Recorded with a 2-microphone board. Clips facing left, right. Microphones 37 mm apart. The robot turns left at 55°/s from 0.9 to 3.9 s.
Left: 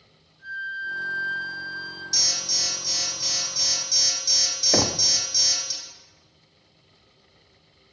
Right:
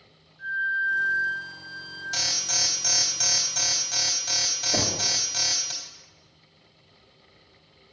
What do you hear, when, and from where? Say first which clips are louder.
0.4 s a flute: right 6 dB; 115° right, 2.5 m; by 2.0 s 175° right, 2.5 m
2.1 s an alarm: right 1 dB; 45° right, 3 m; by 5.7 s 145° right, 3 m
4.7 s knocking: left 5 dB; 40° left (ahead or behind), 0.8 m